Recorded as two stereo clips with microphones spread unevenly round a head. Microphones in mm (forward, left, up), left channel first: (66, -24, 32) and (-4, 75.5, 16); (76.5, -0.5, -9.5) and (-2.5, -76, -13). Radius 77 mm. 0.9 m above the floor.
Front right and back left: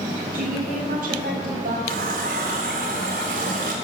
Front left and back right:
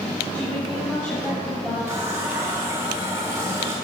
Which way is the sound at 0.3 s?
125° left.